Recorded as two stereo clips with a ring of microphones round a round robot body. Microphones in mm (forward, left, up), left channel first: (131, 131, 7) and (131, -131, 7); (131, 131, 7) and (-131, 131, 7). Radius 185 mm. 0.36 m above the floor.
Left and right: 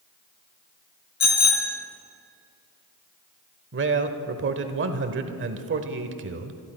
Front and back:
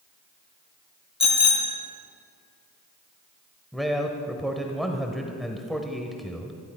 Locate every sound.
1.2 s a bicycle bell: 70° left, 3 m
3.7 s a man speaking: 90° right, 1.1 m